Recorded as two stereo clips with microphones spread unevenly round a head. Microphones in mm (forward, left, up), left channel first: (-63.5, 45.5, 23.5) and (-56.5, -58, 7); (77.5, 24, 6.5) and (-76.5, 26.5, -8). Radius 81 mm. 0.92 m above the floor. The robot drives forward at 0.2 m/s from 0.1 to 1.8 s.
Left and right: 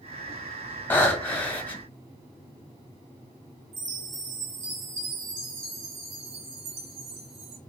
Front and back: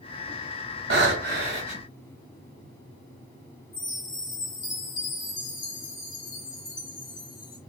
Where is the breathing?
165° left, 1.3 m.